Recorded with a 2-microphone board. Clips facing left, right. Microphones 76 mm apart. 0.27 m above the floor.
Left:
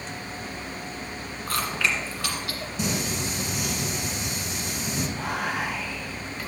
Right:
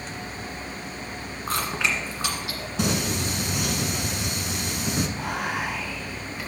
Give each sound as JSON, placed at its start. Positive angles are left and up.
{"t": 1.5, "sound": "chewing", "side_deg": -20, "distance_m": 1.7}
{"t": 2.8, "sound": "singing", "side_deg": -75, "distance_m": 1.0}
{"t": 5.1, "sound": "whispering", "side_deg": -5, "distance_m": 2.5}